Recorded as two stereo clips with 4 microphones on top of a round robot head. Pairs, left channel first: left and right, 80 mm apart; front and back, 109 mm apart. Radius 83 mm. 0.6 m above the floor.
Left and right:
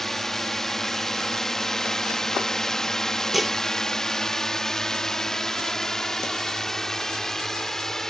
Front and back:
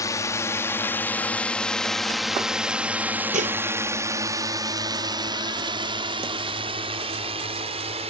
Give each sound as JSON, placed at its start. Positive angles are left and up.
{"t": 0.0, "sound": "a drone", "azimuth_deg": 5}
{"t": 3.3, "sound": "dishes clattering", "azimuth_deg": 180}